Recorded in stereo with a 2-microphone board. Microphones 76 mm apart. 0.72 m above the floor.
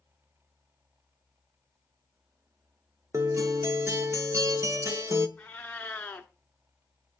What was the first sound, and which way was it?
A guitar, 45° right (ahead or behind).